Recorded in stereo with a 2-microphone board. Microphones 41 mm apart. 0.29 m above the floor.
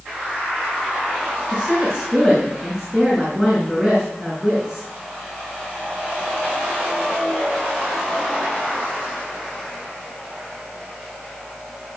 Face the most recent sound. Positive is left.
turn(degrees=10)  # may be behind; listen again after turning